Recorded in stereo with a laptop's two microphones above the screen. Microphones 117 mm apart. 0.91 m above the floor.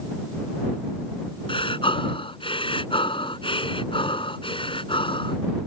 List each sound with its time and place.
1.5 s breathing: 50° left (ahead or behind)